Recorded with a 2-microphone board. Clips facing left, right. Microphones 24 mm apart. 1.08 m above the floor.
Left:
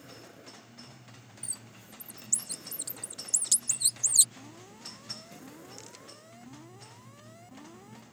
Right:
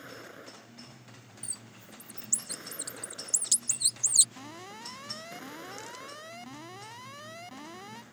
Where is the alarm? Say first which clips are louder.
Right 5 dB; 65° right (ahead or behind).